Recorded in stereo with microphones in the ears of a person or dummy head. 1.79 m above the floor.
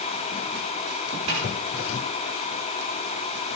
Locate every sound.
1.3 s a snare drum: 40° right (ahead or behind), 6 m